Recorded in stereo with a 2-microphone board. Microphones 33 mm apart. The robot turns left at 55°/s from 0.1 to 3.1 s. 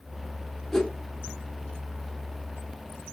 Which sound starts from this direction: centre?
A whoosh, at 0.7 s.